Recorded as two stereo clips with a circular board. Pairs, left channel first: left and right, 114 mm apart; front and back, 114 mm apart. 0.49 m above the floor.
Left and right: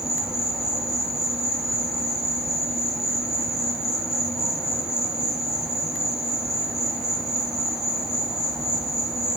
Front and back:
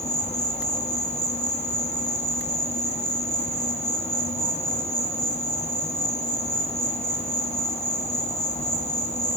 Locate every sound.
0.0 s an insect: 5° right, 1.6 m